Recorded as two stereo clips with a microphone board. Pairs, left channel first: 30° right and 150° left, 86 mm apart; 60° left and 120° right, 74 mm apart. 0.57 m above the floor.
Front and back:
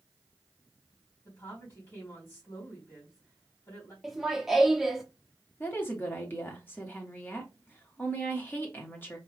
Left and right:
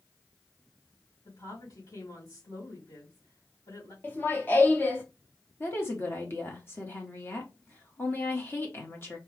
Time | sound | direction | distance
1.2 | a woman speaking | 30° left | 3 m
4.0 | laughter | 60° left | 0.9 m
5.6 | a woman speaking | 20° left | 1.1 m